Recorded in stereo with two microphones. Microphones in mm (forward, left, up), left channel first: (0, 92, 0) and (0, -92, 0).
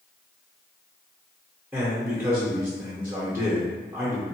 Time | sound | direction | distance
1.7 | a man speaking | 10° right (ahead or behind) | 0.8 m